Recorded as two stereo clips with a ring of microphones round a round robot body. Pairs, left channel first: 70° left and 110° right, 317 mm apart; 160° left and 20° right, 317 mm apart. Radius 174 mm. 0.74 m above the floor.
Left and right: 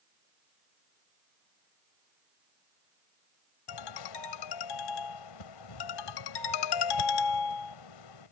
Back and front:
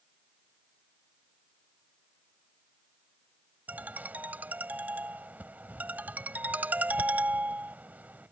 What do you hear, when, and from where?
3.7 s a ringtone: 65° left